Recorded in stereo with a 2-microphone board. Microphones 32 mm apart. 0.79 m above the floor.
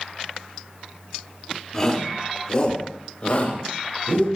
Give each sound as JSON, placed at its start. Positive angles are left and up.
{"t": 1.7, "sound": "a shout", "side_deg": 15, "distance_m": 1.9}